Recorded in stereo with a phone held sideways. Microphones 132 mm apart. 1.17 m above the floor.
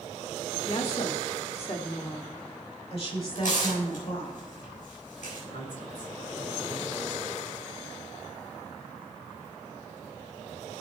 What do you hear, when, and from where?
0.7 s a woman speaking: 50° left (ahead or behind), 1.5 m
3.4 s tearing paper: 75° left (ahead or behind), 6 m
5.5 s a woman speaking: 85° left, 4 m